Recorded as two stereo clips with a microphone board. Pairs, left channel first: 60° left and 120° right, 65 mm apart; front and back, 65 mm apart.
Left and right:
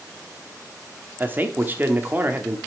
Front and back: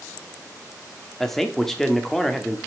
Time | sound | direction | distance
1.2 | a man speaking | 85° right | 1.0 m